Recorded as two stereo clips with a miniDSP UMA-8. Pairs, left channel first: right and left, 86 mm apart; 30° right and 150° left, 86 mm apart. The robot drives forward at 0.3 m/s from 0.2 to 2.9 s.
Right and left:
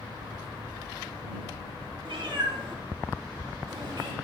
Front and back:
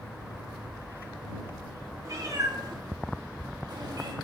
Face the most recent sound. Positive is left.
turn(degrees=115)